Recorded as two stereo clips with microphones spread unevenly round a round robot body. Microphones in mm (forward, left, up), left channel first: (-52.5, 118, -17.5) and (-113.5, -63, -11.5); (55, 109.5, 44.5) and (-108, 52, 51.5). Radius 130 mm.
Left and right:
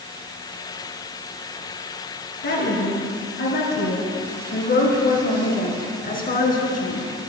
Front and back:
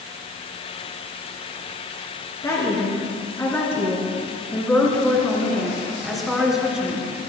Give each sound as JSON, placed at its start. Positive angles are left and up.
{"t": 2.4, "sound": "a woman speaking", "azimuth_deg": 90, "distance_m": 5.0}